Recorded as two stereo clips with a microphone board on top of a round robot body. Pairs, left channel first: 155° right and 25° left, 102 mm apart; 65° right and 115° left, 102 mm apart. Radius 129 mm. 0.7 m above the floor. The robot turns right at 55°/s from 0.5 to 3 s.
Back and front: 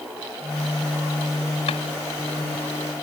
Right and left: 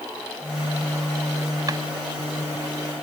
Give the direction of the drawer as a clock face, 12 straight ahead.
6 o'clock.